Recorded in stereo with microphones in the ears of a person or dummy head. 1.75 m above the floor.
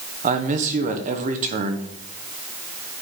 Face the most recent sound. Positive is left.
turn(degrees=-35)  # may be behind; listen again after turning